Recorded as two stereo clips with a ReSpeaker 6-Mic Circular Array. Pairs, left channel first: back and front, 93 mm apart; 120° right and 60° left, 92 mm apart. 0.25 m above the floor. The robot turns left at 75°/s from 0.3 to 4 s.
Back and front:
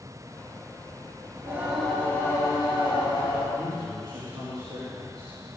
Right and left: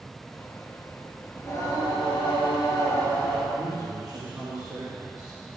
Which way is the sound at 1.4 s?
55° right.